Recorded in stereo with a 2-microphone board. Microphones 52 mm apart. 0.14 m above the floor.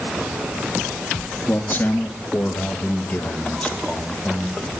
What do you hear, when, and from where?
1.5 s a man speaking: 45° left (ahead or behind), 2 m; by 4.6 s 20° left (ahead or behind), 4 m